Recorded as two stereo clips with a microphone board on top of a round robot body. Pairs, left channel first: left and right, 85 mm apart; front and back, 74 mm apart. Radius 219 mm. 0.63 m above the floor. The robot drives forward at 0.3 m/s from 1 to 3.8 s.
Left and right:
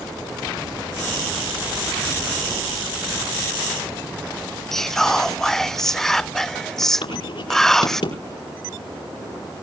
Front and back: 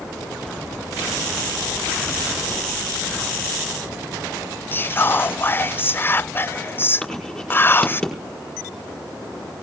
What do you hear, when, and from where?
4.7 s whispering: 10° left, 0.5 m
7.0 s writing: 85° left, 5 m